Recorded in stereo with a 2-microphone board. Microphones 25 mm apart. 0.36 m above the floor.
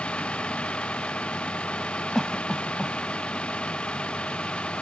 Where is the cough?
5° left (ahead or behind).